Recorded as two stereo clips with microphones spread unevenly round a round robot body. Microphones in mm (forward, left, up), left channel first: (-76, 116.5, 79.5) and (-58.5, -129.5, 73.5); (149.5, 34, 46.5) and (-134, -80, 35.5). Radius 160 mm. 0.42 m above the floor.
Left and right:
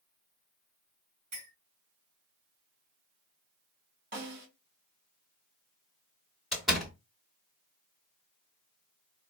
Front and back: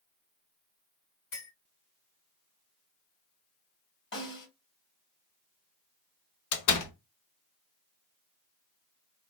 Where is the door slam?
5° left, 1.3 m.